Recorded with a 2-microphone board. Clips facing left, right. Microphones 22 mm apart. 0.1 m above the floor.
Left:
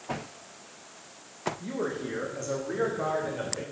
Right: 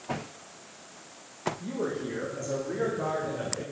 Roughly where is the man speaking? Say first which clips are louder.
Even; left.